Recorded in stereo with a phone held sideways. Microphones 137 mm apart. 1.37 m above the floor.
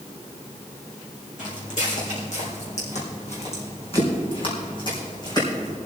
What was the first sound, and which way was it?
Footsteps, 70° left (ahead or behind).